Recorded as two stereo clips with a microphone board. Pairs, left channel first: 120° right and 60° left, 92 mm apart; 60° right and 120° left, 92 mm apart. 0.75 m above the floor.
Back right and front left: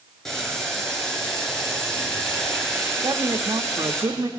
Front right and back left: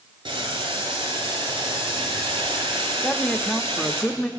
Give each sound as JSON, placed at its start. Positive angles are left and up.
{"t": 0.2, "sound": "boiling", "azimuth_deg": 155, "distance_m": 8.0}
{"t": 3.0, "sound": "a man speaking", "azimuth_deg": 25, "distance_m": 1.1}